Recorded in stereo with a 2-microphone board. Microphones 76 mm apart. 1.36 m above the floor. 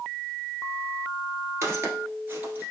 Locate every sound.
1.6 s footsteps: 35° right (ahead or behind), 1.6 m; by 2.7 s 20° right (ahead or behind), 1.4 m